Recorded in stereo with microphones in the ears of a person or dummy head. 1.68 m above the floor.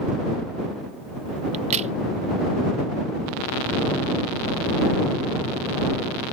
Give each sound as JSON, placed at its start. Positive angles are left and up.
{"t": 1.5, "sound": "a crack", "side_deg": -40}